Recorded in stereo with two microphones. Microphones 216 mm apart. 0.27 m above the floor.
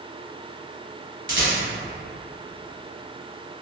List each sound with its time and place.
1.3 s a rattle: 60° right (ahead or behind), 0.9 m